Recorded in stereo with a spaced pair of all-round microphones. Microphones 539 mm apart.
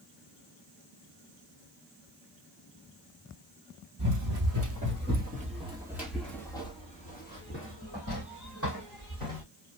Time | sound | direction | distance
4.0 | running footsteps | 35° right (ahead or behind) | 2 m